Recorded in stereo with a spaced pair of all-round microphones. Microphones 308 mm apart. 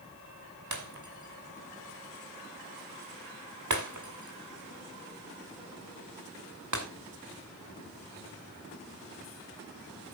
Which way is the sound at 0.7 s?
60° right (ahead or behind).